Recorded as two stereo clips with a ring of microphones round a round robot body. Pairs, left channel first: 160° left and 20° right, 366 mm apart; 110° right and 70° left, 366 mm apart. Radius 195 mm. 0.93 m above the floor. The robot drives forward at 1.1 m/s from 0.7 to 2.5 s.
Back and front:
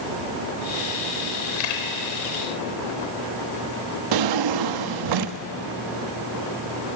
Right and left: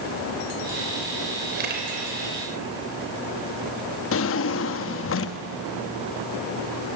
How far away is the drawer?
About 0.7 m.